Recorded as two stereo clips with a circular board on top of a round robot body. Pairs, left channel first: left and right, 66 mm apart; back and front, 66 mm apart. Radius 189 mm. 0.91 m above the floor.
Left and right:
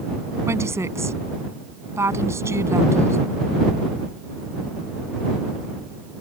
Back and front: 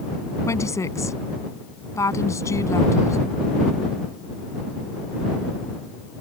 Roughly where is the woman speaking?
Behind right.